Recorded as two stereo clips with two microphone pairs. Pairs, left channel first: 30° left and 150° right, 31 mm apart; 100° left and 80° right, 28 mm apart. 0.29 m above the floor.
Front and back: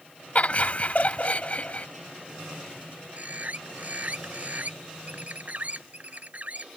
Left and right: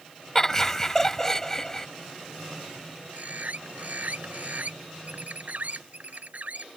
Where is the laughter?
30° left.